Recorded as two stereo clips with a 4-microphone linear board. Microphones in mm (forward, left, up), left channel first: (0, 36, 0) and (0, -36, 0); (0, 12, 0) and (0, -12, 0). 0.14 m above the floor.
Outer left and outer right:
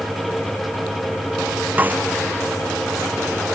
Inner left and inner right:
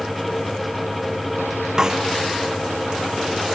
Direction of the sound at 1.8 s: 25° right (ahead or behind).